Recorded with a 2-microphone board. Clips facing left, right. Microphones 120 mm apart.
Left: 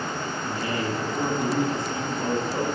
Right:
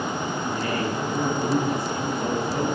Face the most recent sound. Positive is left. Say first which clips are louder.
# even
turn(degrees=25)  # may be behind; listen again after turning